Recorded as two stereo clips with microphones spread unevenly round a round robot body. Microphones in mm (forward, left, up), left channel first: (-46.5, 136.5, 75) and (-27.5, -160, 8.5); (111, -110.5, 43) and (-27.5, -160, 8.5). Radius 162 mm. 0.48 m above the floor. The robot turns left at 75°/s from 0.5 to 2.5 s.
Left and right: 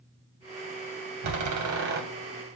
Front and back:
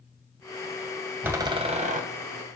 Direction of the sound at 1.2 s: 85° right.